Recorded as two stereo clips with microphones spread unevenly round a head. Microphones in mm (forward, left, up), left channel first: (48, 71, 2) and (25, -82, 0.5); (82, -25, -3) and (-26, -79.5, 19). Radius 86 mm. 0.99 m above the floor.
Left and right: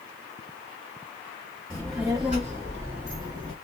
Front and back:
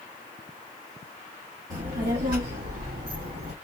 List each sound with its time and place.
1.7 s a child speaking: 165° left, 1.0 m; by 3.5 s 165° right, 1.8 m